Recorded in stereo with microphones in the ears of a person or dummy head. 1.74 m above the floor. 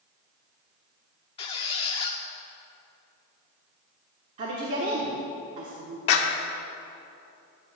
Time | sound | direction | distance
1.4 | a squeak | 20° left (ahead or behind) | 1.1 m
4.4 | a woman speaking | 45° right (ahead or behind) | 1.1 m
6.1 | a clap | 60° left (ahead or behind) | 1.2 m